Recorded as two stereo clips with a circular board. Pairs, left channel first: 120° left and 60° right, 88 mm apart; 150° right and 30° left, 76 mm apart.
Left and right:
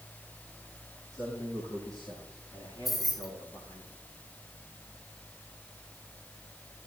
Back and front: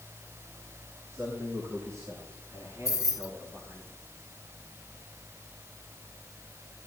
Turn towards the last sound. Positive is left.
turn(degrees=-150)